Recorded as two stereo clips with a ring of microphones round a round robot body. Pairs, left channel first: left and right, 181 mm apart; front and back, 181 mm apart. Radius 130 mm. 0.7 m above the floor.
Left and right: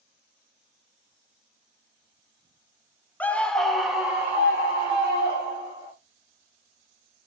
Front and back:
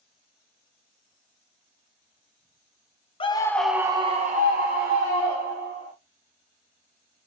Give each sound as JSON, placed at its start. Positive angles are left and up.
{"t": 3.2, "sound": "a scream", "azimuth_deg": 15, "distance_m": 0.6}